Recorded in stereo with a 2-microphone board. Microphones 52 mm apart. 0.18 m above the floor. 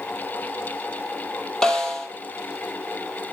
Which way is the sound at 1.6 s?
15° left (ahead or behind).